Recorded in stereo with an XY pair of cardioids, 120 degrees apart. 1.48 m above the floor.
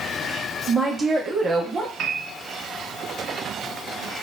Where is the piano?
60° right, 0.9 m.